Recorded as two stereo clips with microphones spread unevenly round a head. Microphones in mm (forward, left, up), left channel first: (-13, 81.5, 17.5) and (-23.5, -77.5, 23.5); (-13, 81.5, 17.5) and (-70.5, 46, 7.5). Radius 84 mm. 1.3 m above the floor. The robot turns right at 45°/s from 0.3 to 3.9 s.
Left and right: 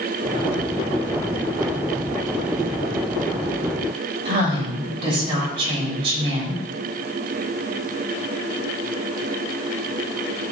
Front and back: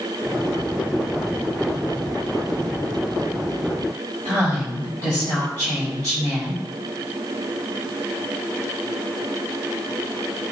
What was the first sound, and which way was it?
A woman speaking, 35° right.